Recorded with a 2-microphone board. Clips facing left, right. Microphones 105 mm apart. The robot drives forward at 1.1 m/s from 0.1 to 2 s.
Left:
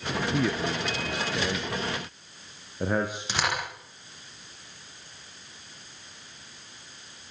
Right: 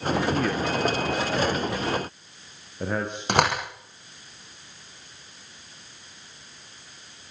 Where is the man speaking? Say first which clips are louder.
Right 2 dB; 5° left (ahead or behind), 2 m.